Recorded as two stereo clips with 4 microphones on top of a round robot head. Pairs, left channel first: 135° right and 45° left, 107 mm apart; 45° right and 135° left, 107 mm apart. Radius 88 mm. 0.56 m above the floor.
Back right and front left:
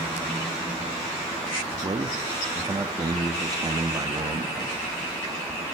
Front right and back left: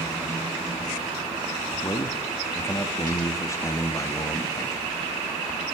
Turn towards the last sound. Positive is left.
turn(degrees=5)